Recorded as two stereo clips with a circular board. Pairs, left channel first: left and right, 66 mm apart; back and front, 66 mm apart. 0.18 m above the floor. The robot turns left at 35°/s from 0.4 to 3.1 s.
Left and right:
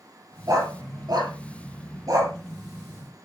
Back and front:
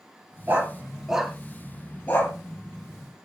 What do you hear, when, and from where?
0.5 s a dog barking: 60° right, 2.5 m; by 2.3 s 125° right, 2.5 m